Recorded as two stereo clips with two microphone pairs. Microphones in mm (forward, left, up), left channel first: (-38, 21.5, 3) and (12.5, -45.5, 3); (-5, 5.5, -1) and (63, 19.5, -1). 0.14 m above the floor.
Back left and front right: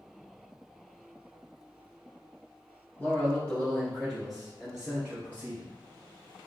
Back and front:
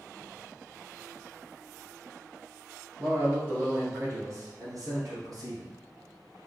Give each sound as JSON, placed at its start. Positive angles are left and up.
{"t": 3.0, "sound": "a man speaking", "azimuth_deg": 65, "distance_m": 1.5}